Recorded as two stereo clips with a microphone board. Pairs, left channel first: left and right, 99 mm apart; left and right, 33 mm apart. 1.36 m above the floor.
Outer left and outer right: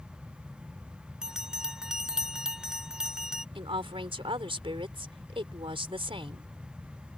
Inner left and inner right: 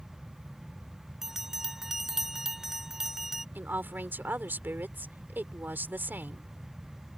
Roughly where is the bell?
Centre.